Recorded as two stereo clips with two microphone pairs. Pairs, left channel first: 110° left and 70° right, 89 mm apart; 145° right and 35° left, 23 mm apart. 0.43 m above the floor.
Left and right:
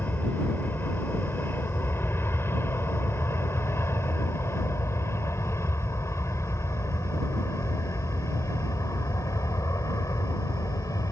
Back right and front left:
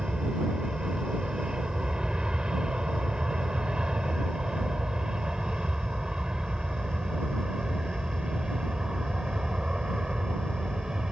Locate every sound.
0.0 s an aircraft: 55° left; by 11.1 s 75° left